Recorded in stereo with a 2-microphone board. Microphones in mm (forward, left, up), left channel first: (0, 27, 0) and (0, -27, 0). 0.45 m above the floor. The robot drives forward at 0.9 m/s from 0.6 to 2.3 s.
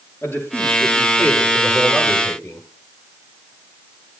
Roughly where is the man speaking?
Left.